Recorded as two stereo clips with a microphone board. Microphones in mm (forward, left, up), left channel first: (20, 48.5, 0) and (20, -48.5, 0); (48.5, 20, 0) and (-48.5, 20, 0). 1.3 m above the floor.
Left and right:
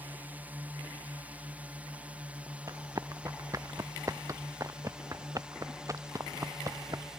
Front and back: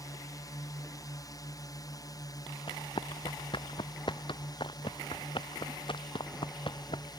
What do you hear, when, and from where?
0.0 s a drone: 25° right; by 7.2 s 10° right
2.7 s running footsteps: 35° right